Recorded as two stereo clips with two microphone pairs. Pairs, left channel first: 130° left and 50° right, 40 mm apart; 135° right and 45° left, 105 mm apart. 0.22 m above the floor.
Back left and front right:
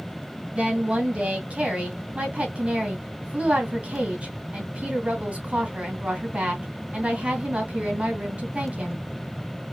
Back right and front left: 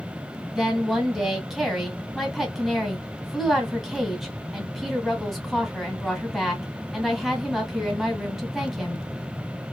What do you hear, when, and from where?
0.6 s a woman speaking: 40° right, 1.7 m